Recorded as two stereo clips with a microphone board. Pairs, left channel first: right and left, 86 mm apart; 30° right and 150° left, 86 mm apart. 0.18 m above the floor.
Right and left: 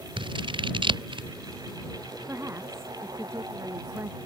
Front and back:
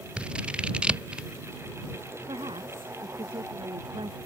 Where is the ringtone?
No ringtone in this recording.